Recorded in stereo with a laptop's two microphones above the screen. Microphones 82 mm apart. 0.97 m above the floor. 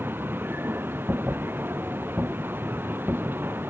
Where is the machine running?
30° right (ahead or behind).